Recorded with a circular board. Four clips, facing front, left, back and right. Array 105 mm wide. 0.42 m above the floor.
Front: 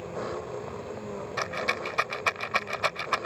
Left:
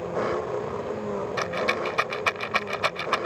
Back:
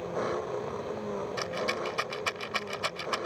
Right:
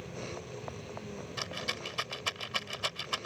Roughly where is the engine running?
Left.